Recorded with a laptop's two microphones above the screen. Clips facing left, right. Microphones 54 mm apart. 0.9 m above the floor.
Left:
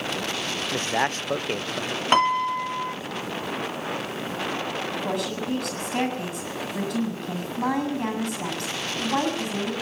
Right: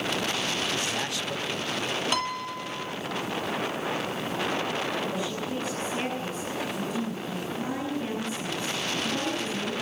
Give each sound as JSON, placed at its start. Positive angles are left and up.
{"t": 0.7, "sound": "a man speaking", "side_deg": 45, "distance_m": 0.5}
{"t": 2.1, "sound": "a piano", "side_deg": 45, "distance_m": 0.6}
{"t": 4.9, "sound": "a woman speaking", "side_deg": 85, "distance_m": 7.0}